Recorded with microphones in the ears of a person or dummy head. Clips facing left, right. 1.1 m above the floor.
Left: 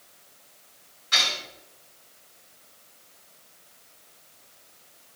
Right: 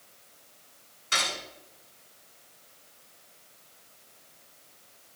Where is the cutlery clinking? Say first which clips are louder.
Even; 45° right (ahead or behind), 7.5 m.